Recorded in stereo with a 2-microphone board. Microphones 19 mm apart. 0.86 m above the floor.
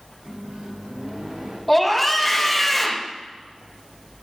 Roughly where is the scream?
Centre.